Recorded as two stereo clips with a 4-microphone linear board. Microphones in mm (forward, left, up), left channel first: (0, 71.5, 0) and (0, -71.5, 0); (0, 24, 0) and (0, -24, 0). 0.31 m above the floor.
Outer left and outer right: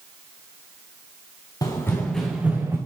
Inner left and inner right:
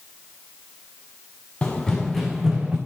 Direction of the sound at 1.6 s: 25° left (ahead or behind).